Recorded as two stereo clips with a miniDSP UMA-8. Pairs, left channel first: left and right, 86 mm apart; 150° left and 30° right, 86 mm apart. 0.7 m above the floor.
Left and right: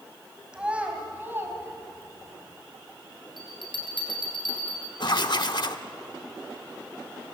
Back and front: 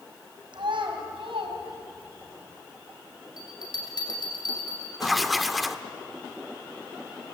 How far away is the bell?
About 5.5 m.